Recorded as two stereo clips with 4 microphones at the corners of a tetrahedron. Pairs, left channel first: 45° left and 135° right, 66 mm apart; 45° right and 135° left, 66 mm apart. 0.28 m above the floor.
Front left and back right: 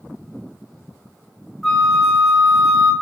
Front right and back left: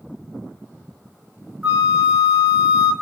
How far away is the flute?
About 0.9 m.